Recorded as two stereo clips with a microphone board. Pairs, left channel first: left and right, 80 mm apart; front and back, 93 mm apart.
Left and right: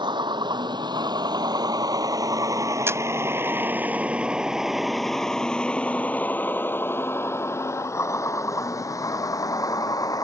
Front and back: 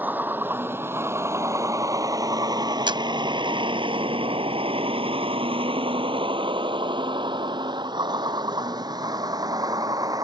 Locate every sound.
0.0 s a vehicle: 110° right; by 10.2 s 130° left
2.9 s a camera shutter: 150° right